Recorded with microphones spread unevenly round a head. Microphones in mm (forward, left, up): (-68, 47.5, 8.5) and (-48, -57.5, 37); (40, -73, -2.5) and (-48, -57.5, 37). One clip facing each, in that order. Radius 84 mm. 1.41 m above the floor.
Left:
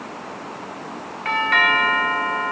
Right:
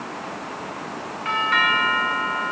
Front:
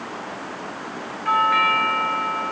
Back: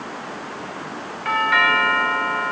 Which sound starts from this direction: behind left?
A doorbell, at 1.2 s.